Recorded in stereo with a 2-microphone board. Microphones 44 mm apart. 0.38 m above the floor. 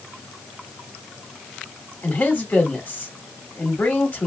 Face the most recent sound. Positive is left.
turn(degrees=40)  # may be behind; listen again after turning